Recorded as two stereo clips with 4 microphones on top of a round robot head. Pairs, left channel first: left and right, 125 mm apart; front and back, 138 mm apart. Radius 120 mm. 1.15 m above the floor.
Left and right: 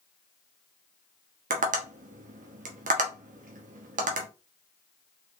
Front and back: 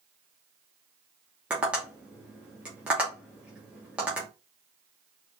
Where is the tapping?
95° right, 1.0 m.